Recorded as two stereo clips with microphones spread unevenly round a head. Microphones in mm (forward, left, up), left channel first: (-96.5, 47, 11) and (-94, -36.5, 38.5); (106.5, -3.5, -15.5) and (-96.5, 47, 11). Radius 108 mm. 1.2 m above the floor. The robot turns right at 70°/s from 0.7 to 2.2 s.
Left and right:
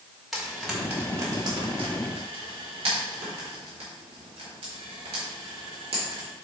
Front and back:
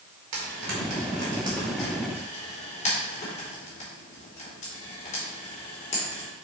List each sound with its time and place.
0.3 s frying: straight behind, 3 m; by 6.3 s 75° right, 3 m